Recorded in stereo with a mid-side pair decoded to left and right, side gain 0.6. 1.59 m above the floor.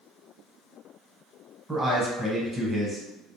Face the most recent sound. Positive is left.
turn(degrees=-10)